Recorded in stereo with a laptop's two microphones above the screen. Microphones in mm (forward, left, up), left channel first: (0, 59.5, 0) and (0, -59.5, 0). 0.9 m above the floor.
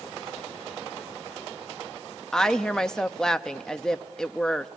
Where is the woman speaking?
5° left (ahead or behind), 0.8 m.